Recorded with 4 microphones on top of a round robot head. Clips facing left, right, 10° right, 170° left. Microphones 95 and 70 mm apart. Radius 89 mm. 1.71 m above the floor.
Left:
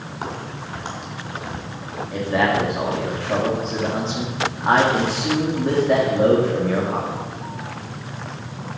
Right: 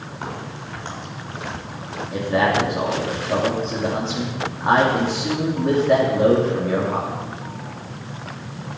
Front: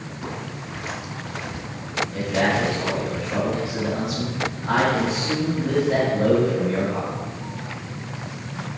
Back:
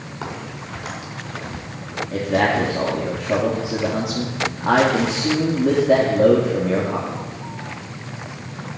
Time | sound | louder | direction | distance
0.2 | a crack | left 1 dB, back 2 dB | 160° left | 7 m
2.1 | a man speaking | right 1 dB, back 4 dB | straight behind | 3 m